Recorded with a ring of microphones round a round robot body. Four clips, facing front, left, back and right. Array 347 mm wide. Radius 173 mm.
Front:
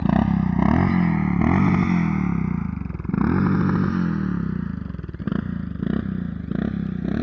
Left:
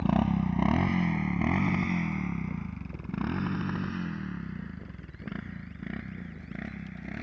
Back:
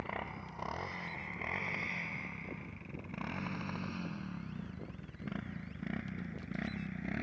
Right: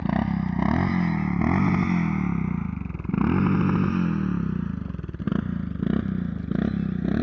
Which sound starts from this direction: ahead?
A motorcycle, at 0.0 s.